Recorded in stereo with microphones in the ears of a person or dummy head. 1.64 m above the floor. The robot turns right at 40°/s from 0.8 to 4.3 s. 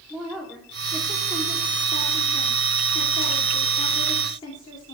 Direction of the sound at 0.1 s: Straight ahead.